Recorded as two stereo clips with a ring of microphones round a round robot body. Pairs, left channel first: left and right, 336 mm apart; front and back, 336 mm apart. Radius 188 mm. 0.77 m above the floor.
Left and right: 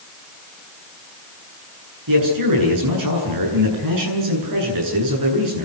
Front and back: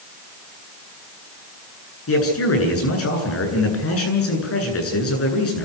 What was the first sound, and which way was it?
A man speaking, 50° right.